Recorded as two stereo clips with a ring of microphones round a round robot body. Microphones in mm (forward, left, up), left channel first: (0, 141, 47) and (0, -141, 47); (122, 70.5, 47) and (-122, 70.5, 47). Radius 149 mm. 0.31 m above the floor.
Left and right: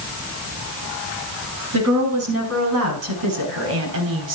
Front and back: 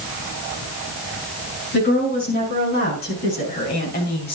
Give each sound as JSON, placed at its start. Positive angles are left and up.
{"t": 1.7, "sound": "a woman speaking", "azimuth_deg": -55, "distance_m": 6.5}